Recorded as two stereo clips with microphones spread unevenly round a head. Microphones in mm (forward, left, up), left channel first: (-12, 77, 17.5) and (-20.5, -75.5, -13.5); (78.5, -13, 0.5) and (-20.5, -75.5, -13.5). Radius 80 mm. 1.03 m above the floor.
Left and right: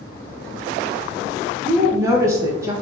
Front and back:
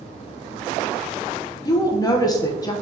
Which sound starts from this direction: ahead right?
A woman speaking, at 1.6 s.